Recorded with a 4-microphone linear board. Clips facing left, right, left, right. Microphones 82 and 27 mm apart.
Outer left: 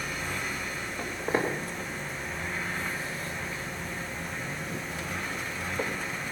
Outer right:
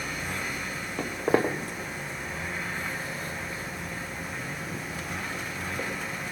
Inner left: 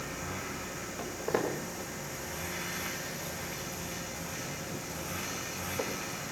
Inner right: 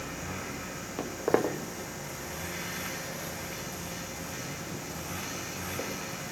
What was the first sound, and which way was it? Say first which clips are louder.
Footsteps: outer right 5 dB, inner right 5 dB; 85° right.